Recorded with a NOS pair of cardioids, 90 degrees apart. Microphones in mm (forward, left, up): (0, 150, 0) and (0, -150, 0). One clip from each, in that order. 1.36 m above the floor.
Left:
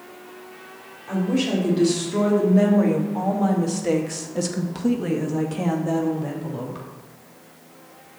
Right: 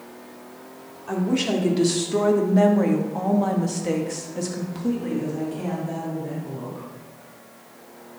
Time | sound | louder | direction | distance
1.1 | a woman speaking | even | 30° right | 3.5 m